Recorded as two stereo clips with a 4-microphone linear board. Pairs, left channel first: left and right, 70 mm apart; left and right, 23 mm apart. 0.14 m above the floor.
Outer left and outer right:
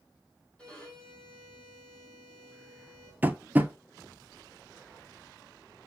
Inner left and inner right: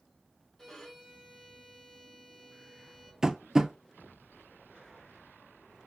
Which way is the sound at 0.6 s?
10° left (ahead or behind).